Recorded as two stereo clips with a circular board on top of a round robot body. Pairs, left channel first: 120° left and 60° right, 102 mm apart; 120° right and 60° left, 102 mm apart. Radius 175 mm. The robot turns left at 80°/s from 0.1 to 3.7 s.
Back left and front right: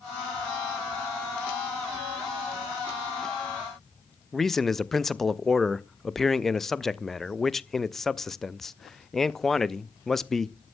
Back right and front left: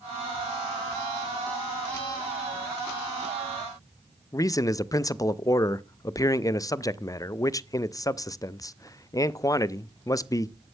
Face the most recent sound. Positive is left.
turn(degrees=-155)